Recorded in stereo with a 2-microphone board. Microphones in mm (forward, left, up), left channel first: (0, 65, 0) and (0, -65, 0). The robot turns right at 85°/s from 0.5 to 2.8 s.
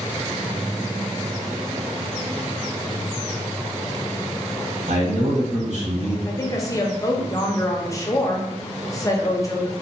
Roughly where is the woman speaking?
Left.